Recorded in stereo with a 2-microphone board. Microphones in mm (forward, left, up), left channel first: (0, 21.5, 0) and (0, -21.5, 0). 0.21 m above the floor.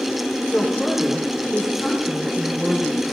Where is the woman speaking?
5° right (ahead or behind), 8.5 m.